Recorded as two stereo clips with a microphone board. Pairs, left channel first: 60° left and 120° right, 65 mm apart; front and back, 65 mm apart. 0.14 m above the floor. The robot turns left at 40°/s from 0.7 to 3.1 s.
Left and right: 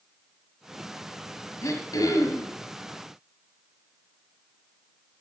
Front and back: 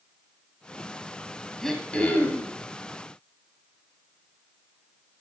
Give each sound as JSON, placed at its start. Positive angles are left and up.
{"t": 1.6, "sound": "throat clearing", "azimuth_deg": 85, "distance_m": 2.0}